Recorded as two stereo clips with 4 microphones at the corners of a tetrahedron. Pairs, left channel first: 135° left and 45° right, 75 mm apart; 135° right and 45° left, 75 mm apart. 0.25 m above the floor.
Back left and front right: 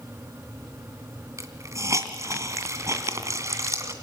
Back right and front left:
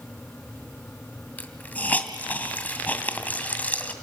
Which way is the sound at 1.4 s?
75° right.